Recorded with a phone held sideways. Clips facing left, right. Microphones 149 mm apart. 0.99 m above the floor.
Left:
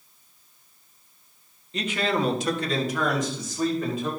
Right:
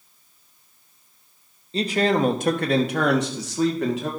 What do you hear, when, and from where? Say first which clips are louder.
1.7 s a man speaking: right 5 dB; 30° right (ahead or behind), 1.0 m; by 4.1 s 80° right, 1.8 m